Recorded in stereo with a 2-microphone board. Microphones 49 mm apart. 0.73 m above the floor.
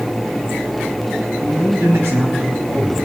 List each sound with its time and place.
1.4 s a man speaking: 75° right (ahead or behind), 7 m; by 3.1 s 80° right, 6 m